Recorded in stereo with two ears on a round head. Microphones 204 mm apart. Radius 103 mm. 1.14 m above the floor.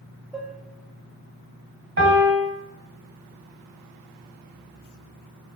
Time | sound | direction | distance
0.3 | dishes clattering | centre (ahead or behind) | 0.5 m
2.0 | a piano | 50° right (ahead or behind) | 1.2 m